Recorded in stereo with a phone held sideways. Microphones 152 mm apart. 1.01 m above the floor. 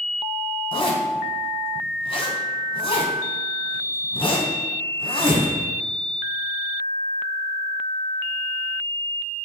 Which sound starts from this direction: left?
A zipper, at 0.7 s.